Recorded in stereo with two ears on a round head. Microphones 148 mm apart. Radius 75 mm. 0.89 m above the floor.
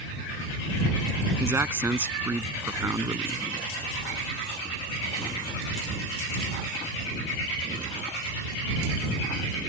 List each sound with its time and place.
1.4 s a man speaking: 15° right (ahead or behind)